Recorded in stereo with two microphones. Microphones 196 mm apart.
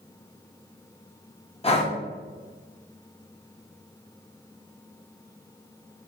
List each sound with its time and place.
1.6 s breathing: 30° left (ahead or behind), 0.6 m